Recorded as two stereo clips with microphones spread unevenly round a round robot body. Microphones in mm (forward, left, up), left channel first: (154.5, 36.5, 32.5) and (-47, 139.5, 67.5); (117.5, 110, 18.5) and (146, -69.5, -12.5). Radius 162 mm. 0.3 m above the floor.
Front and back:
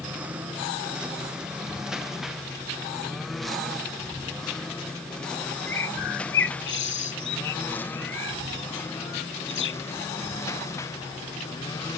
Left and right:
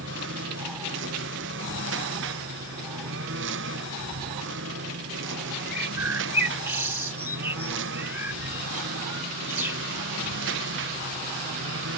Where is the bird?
5° right.